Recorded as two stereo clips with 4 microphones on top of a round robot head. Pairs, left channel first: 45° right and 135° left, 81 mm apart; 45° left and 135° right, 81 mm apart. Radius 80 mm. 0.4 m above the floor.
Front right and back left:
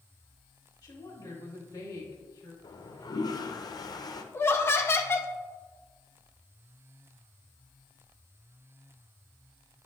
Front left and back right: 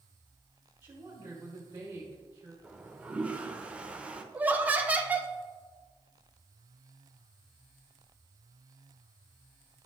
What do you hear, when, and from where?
0.8 s a woman speaking: 75° right, 2.5 m
2.6 s a toilet flushing: 60° right, 0.9 m
4.3 s laughter: 80° right, 1.1 m